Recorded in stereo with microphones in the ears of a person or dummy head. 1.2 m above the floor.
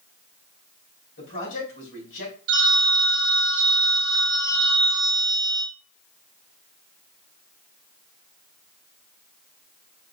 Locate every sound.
1.2 s a man speaking: 70° left (ahead or behind), 2.5 m
2.5 s a phone ringing: 70° right (ahead or behind), 0.8 m